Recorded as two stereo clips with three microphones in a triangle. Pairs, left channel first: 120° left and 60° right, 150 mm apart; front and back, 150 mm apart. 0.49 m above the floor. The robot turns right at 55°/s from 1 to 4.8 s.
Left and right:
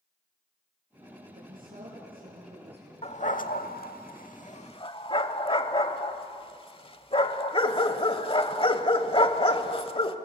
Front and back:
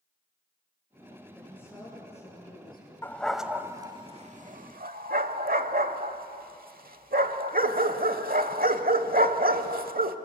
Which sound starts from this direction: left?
A dog barking, at 3.0 s.